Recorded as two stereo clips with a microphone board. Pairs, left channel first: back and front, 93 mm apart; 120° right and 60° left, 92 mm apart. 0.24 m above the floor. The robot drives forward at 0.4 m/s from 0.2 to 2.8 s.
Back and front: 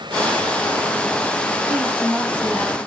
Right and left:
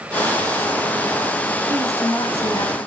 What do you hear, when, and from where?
1.7 s a woman speaking: 105° right, 1.6 m; by 2.9 s 125° right, 1.7 m